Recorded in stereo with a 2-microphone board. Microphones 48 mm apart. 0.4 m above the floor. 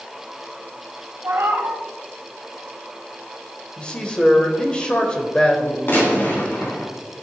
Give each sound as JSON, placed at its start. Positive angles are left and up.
{"t": 1.2, "sound": "a cat meowing", "side_deg": -75, "distance_m": 1.4}
{"t": 3.8, "sound": "a man speaking", "side_deg": 20, "distance_m": 1.4}
{"t": 5.9, "sound": "a gunshot", "side_deg": 50, "distance_m": 3.0}